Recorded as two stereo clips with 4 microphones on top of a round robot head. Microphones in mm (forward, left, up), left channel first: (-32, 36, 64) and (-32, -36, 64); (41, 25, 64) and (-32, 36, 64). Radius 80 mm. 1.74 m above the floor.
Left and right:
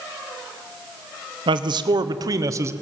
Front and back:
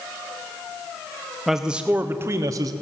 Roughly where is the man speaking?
Right.